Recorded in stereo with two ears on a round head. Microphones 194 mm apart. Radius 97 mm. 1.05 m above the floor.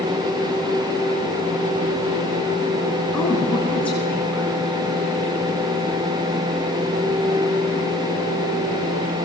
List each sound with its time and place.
3.1 s a woman speaking: 5° left (ahead or behind), 10 m